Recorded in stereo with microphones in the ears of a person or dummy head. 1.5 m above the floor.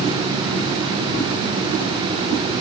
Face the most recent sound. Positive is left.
No sound to turn to.